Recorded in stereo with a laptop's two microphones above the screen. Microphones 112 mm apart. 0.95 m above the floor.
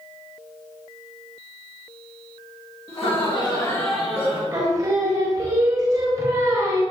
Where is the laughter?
60° left (ahead or behind), 1.6 m; by 4.4 s 35° right (ahead or behind), 1.1 m.